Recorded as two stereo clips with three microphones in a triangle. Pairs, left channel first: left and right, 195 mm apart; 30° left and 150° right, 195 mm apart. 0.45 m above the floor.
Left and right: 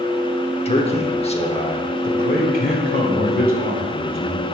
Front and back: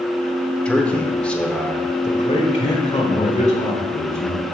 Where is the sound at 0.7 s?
110° left, 0.9 m.